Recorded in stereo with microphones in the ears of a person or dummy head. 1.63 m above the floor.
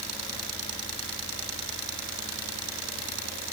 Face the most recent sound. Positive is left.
No sound to turn to.